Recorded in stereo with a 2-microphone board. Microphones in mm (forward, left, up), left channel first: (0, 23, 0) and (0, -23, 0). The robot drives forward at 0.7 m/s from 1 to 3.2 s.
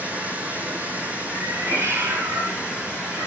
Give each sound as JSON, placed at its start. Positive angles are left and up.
{"t": 0.0, "sound": "running water", "side_deg": -35, "distance_m": 5.0}
{"t": 1.3, "sound": "a cat meowing", "side_deg": -65, "distance_m": 5.0}